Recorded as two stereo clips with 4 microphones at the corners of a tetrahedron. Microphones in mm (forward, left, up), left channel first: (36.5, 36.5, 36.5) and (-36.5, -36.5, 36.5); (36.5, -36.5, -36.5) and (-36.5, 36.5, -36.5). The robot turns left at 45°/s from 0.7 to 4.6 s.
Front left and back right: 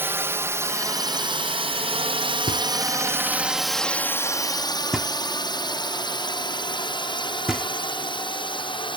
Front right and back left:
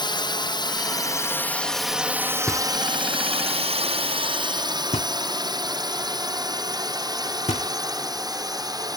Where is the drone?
70° right; by 9.0 s 80° left.